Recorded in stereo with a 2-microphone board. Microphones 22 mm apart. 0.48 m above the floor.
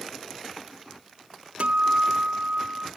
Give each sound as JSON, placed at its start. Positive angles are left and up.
{"t": 1.6, "sound": "a guitar", "side_deg": -65, "distance_m": 0.5}